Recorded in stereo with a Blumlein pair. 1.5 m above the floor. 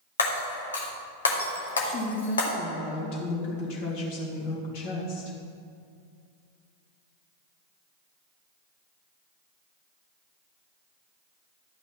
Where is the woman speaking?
45° left, 3 m.